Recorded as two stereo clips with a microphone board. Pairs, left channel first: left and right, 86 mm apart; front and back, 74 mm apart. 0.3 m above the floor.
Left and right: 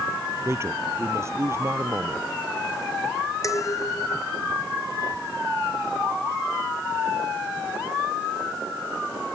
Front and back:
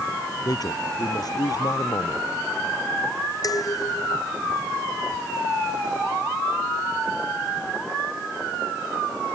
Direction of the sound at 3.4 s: 40° left.